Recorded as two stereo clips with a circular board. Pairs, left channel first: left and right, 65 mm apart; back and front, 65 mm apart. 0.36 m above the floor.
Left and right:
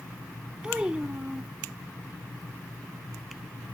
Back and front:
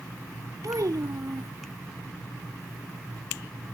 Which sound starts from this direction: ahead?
A child speaking, at 0.6 s.